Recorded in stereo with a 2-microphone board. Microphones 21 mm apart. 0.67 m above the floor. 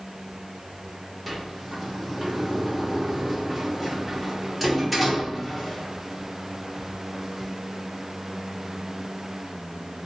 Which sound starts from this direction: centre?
A sliding door, at 1.3 s.